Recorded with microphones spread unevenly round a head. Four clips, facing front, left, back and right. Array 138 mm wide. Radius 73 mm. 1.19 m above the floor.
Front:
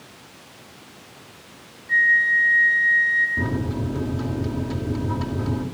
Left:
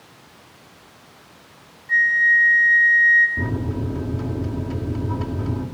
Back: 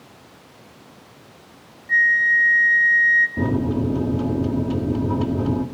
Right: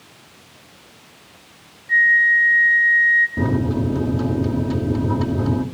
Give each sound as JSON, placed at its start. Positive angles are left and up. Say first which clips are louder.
{"t": 1.9, "sound": "a flute", "louder": "right 2 dB, back 1 dB", "azimuth_deg": 150, "distance_m": 1.3}
{"t": 3.4, "sound": "a microwave", "louder": "right 6 dB, back 5 dB", "azimuth_deg": -130, "distance_m": 1.9}